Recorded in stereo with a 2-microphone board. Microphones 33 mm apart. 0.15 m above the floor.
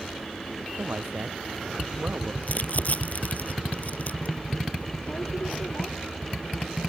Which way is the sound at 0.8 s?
80° right.